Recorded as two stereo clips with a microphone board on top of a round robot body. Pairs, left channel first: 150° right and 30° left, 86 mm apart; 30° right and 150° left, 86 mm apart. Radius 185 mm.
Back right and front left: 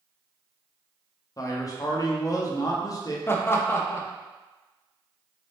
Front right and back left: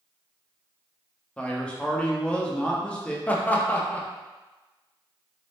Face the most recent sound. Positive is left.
turn(degrees=-95)